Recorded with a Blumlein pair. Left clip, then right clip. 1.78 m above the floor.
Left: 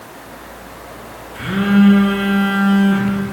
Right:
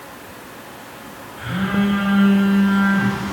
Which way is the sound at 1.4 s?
40° left.